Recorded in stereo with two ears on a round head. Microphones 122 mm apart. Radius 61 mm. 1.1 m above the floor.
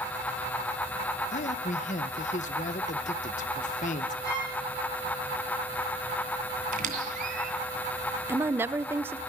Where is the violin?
25° left (ahead or behind), 9.5 m.